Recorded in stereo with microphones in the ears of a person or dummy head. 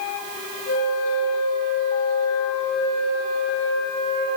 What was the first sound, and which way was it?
A flute, 45° left (ahead or behind).